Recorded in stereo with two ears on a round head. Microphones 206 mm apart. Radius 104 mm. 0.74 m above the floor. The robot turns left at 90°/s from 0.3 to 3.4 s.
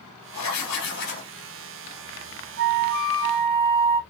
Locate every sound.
0.3 s writing: 100° left, 2.5 m; by 1.3 s 15° left, 2.5 m
2.6 s a flute: 60° right, 1.3 m; by 4.0 s 135° right, 1.3 m